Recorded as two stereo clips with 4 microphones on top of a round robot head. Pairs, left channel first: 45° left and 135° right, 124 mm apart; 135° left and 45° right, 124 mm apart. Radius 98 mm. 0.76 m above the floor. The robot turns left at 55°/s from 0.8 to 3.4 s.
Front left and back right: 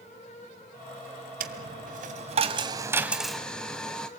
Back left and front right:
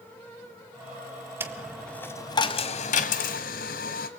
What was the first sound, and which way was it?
A dropped coin, 120° right.